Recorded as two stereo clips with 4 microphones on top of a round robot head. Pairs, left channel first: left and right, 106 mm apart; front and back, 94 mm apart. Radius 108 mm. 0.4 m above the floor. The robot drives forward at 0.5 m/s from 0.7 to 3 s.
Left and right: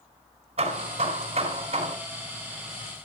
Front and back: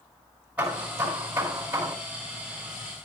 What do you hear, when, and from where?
0.6 s hammering: 100° right, 4 m; by 1.9 s 110° right, 4.5 m